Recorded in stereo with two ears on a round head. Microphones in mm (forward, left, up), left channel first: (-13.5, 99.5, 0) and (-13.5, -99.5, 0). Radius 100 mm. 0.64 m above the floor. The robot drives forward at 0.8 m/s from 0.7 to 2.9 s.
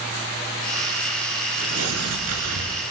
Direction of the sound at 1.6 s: 80° right.